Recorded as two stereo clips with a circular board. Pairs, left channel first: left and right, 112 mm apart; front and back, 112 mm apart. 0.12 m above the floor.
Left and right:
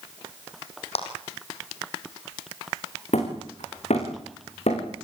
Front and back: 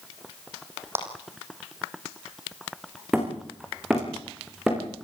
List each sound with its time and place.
0.9 s a clap: 110° left, 5 m
3.1 s hammering: 95° left, 8 m